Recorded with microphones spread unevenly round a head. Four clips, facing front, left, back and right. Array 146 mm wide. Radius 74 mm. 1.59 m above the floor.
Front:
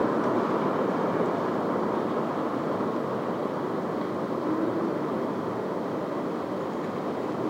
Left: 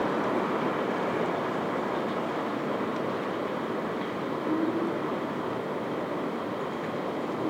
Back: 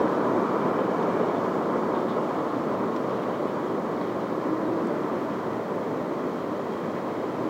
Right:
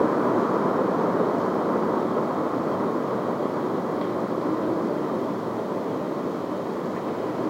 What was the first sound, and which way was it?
Only background noise.